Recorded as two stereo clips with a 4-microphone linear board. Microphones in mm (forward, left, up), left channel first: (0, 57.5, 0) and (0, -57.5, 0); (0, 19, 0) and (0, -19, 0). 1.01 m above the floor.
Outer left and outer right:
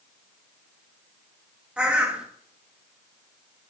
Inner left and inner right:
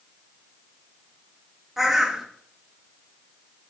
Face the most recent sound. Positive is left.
turn(degrees=-10)  # may be behind; listen again after turning